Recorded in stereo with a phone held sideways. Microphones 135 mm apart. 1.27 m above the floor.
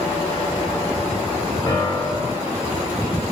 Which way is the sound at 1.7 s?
30° left (ahead or behind).